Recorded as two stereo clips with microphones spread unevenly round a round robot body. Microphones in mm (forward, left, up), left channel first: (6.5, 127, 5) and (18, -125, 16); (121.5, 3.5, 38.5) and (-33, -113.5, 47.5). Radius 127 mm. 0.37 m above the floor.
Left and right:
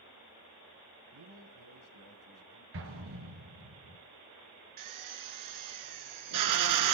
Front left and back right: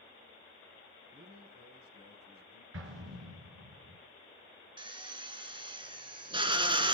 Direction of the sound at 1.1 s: 95° right.